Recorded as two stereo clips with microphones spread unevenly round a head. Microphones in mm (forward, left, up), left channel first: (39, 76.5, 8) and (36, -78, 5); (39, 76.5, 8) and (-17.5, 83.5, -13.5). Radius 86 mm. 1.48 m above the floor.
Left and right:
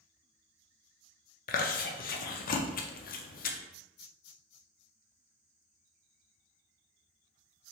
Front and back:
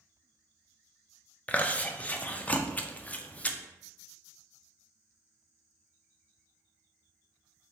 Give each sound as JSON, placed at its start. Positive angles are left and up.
{"t": 1.5, "sound": "chewing", "azimuth_deg": 70, "distance_m": 0.5}